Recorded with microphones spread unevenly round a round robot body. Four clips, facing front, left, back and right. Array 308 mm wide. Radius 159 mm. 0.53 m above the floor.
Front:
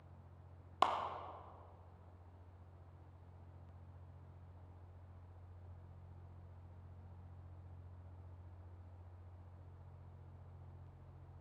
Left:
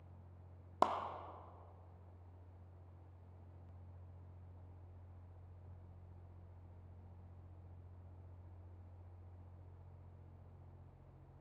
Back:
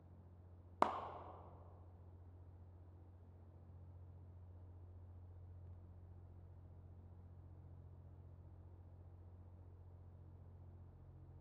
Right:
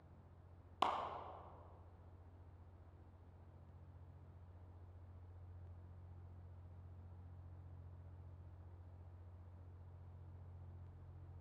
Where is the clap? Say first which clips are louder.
Left 4 dB, front 3 dB; 130° left, 0.7 m.